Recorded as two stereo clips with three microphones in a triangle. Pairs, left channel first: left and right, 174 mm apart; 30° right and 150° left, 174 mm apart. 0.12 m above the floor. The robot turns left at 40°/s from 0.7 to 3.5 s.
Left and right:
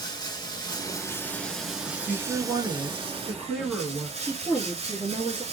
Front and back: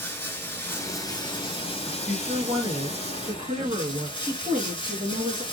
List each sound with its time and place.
0.0 s running water: 40° left, 0.9 m; by 5.5 s 70° right, 0.9 m
1.9 s a woman speaking: 105° right, 2 m; by 4.1 s 175° right, 2 m
4.2 s a woman speaking: 160° right, 1.5 m